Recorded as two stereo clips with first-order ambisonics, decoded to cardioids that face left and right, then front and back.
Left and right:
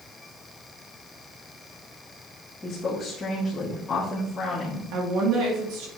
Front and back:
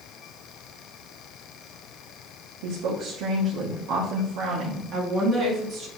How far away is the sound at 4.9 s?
About 2.5 m.